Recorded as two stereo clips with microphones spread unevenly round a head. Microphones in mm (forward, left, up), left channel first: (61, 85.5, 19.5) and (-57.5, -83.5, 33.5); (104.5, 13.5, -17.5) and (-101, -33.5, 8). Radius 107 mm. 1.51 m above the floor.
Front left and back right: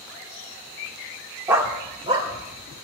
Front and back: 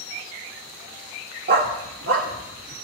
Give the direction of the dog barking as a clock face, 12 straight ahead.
7 o'clock.